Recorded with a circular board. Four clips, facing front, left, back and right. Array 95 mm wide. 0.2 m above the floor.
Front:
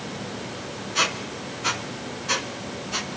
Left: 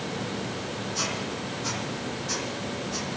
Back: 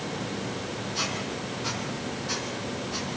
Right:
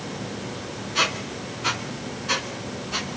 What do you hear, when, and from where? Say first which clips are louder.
0.9 s a squeak: right 4 dB, front 8 dB; 50° right, 1.6 m